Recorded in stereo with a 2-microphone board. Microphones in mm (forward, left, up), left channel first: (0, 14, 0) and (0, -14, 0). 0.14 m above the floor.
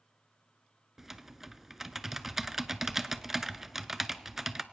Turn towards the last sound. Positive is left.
turn(degrees=-10)  # may be behind; listen again after turning